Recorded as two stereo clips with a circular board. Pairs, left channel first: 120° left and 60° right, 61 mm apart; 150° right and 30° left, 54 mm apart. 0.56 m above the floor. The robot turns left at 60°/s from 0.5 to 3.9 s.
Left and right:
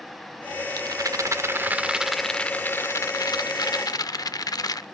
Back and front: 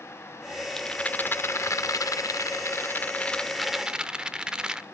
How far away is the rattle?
About 0.6 m.